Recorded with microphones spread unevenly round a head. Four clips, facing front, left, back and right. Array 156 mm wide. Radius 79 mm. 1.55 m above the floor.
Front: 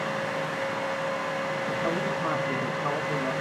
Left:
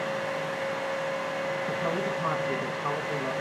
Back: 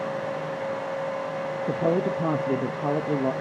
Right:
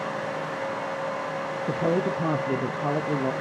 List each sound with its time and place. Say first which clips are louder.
1.7 s a woman speaking: right 9 dB, back 7 dB; 135° right, 0.5 m